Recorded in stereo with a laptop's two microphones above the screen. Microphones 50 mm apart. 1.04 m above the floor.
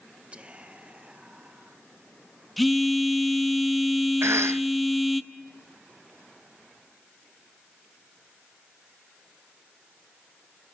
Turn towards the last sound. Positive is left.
turn(degrees=-65)  # may be behind; listen again after turning